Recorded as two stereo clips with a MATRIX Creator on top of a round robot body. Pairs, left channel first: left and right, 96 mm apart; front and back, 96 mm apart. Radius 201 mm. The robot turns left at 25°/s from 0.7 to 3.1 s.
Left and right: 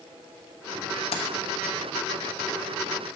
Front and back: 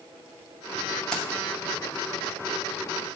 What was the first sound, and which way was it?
Keys jangling, 85° left.